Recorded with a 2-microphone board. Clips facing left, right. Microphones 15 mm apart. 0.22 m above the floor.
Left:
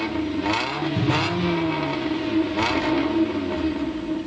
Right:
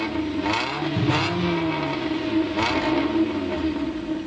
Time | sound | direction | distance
1.0 | a cupboard door | 5° right (ahead or behind) | 3 m